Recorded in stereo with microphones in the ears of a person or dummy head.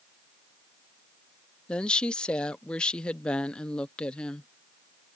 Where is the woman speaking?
10° left (ahead or behind).